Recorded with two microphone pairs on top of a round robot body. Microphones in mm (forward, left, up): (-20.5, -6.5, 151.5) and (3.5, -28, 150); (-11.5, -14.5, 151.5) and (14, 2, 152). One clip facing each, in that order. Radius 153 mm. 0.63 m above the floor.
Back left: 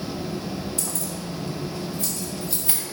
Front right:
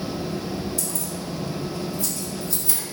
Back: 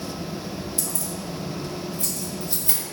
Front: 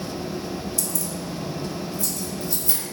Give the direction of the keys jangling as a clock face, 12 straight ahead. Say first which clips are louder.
Front right 1 dB, front 1 dB; 7 o'clock.